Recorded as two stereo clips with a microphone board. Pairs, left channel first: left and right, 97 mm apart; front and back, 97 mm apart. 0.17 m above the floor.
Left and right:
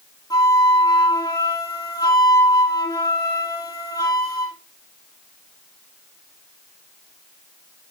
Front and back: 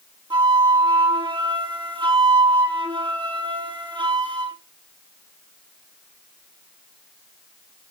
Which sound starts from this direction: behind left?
A flute, at 0.3 s.